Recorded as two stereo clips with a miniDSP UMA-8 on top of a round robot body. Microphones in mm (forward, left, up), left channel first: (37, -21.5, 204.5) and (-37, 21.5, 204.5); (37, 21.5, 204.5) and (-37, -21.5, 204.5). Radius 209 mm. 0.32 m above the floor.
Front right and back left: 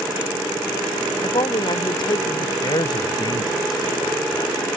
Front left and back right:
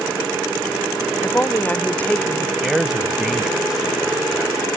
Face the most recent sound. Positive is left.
turn(degrees=-65)